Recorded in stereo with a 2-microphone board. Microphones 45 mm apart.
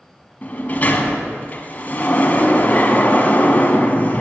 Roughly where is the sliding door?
Left.